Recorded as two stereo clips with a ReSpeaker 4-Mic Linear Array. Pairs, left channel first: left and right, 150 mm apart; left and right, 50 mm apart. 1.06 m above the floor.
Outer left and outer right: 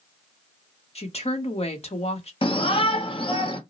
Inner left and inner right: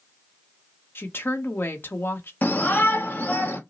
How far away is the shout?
About 1.1 m.